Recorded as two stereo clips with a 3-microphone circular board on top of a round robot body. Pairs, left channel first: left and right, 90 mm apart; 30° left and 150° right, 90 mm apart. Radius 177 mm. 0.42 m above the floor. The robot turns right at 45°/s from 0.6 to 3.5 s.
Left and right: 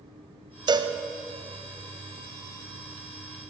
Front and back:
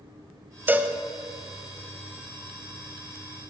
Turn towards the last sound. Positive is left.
turn(degrees=40)